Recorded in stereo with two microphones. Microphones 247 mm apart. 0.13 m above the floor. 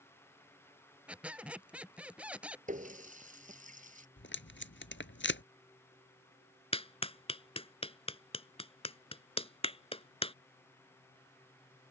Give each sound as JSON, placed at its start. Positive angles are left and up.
{"t": 1.1, "sound": "a squeak", "side_deg": -5}
{"t": 2.7, "sound": "a running tap", "side_deg": -30}
{"t": 4.2, "sound": "tape being pulled", "side_deg": 50}
{"t": 6.7, "sound": "a clap", "side_deg": 25}